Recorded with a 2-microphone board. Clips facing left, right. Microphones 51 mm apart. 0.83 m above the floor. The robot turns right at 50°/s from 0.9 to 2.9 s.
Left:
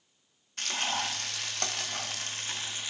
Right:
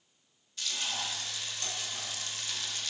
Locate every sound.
0.6 s frying: 60° left, 1.4 m; by 2.9 s 160° left, 1.4 m